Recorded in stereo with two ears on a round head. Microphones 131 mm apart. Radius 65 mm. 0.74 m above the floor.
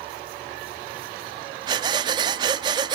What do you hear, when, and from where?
1.7 s breathing: 30° right (ahead or behind), 0.6 m